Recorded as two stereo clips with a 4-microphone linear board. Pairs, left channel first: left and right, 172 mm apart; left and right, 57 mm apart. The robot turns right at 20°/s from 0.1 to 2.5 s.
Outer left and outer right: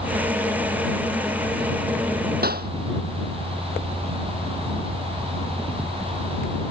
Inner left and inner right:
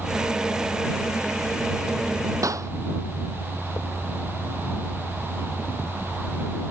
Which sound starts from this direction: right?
A clap, at 2.4 s.